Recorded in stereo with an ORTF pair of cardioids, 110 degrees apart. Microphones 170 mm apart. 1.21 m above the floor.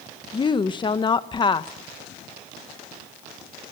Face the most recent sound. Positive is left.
turn(degrees=30)